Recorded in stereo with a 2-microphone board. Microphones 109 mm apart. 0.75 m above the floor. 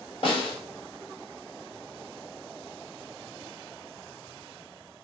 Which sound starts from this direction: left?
A snare drum, at 0.2 s.